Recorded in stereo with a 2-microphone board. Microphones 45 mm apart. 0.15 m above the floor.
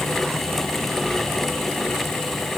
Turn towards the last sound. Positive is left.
No sound to turn to.